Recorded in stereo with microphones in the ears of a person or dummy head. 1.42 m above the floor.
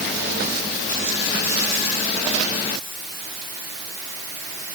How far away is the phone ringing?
I don't hear a phone ringing.